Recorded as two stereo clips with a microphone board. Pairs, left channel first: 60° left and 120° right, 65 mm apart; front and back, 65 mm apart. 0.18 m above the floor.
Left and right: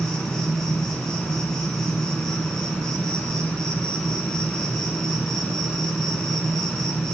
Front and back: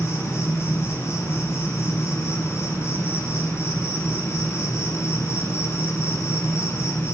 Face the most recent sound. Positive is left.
turn(degrees=-15)